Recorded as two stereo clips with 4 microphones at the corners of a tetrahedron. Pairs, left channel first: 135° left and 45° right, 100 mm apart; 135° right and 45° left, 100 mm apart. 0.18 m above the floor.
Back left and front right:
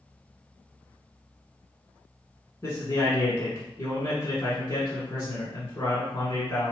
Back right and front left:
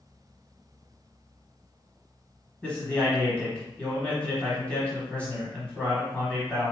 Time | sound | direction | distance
2.6 | a man speaking | 160° left | 1.1 m